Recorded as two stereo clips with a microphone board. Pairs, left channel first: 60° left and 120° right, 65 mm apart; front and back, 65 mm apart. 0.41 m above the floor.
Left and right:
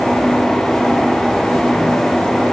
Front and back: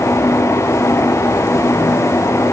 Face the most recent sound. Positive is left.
No sound to turn to.